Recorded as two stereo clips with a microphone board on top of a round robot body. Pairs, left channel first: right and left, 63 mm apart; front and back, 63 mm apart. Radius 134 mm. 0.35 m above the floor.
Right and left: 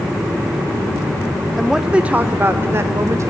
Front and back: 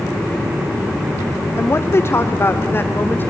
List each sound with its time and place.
1.6 s a woman speaking: straight ahead, 1.0 m; by 3.3 s 55° left, 1.8 m